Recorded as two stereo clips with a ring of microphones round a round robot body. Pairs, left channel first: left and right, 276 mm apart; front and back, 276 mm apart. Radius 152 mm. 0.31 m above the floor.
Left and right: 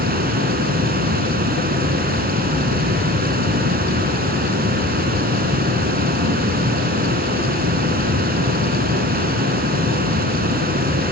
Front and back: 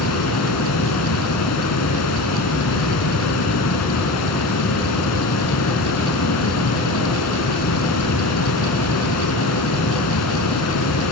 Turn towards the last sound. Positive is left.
turn(degrees=-35)